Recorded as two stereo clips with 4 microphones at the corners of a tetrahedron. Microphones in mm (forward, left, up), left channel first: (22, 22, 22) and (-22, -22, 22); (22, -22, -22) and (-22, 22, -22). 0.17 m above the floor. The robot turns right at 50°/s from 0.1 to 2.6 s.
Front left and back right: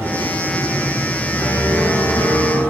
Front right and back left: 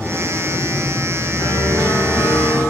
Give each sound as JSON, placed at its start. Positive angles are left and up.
{"t": 1.4, "sound": "a piano", "azimuth_deg": -5, "distance_m": 5.0}